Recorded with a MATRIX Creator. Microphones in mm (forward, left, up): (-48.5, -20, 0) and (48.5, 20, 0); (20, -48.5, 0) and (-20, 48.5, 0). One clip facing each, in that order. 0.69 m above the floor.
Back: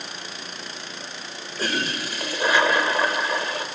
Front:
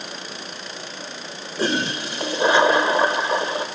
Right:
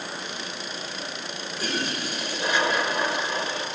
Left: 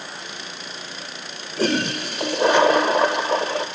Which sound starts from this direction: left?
A toilet flushing, at 1.6 s.